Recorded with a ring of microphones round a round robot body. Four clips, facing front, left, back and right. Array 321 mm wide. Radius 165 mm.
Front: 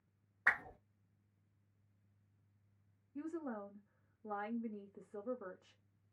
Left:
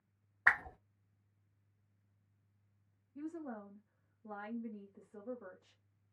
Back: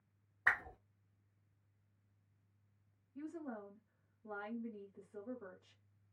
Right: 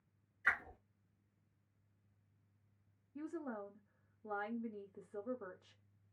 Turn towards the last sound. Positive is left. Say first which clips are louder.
# even, front 3 dB
turn(degrees=-35)